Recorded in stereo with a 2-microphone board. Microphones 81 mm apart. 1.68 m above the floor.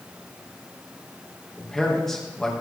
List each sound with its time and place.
1.6 s a man speaking: 5° left (ahead or behind), 2.5 m